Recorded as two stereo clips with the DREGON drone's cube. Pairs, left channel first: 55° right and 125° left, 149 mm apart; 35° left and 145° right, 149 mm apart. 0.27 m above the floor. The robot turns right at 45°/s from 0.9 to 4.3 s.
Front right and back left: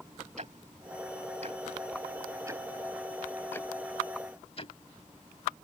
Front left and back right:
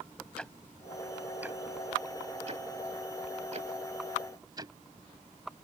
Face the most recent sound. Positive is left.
turn(degrees=-90)